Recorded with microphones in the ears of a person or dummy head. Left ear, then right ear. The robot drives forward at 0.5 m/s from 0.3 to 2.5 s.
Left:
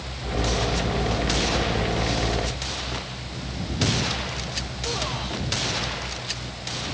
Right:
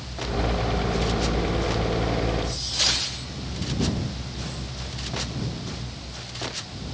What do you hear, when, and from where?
Only background noise.